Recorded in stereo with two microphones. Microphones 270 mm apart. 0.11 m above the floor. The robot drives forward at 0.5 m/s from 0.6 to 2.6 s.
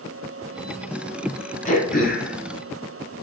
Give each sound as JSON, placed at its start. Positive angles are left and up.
{"t": 1.6, "sound": "throat clearing", "side_deg": 30, "distance_m": 1.2}